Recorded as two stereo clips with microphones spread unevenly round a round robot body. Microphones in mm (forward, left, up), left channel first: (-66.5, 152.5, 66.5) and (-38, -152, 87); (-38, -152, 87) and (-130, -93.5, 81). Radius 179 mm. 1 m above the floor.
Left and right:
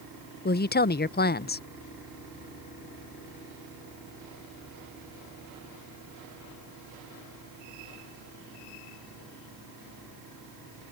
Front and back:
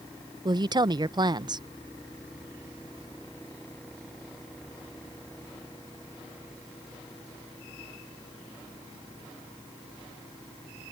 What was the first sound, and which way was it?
A woman speaking, 135° left.